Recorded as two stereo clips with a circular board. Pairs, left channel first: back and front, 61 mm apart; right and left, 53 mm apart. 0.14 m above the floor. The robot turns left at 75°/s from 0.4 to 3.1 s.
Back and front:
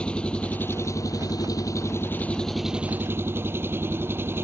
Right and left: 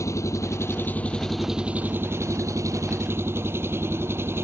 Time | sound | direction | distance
0.0 | an engine running | 105° right | ?